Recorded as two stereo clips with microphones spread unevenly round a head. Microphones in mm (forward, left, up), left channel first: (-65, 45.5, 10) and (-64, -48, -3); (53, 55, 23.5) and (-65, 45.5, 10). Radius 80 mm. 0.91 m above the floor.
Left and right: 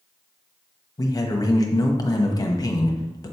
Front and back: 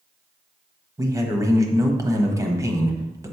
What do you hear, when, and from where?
1.0 s a man speaking: 135° left, 1.2 m